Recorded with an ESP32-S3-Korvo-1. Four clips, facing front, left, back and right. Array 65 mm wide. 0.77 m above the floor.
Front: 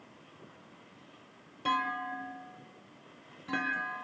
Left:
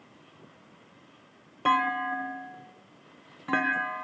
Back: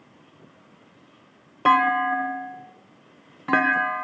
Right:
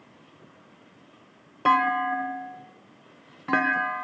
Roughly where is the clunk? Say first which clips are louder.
Right 4 dB, back 13 dB; behind.